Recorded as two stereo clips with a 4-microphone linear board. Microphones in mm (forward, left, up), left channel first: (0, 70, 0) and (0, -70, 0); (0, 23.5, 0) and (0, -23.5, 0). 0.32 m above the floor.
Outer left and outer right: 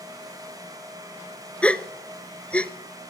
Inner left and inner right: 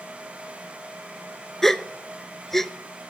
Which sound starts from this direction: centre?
A gasp, at 1.6 s.